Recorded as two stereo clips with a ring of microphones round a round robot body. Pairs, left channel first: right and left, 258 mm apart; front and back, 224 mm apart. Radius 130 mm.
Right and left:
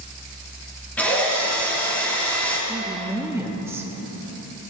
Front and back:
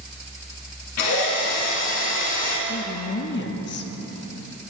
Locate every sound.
1.0 s a drill: 5° right, 3.5 m
2.7 s a woman speaking: 10° left, 0.7 m